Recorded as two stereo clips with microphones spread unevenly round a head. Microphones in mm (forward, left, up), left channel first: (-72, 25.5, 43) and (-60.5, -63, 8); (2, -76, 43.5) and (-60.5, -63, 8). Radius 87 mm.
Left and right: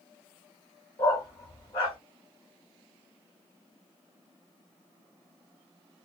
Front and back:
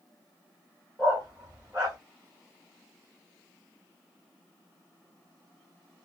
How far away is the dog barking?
About 1.0 m.